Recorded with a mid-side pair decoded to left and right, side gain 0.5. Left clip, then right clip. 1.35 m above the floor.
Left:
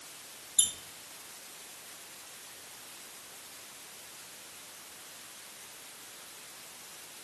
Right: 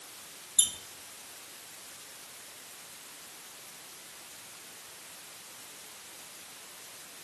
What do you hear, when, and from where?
0.6 s a squeak: 10° right, 1.3 m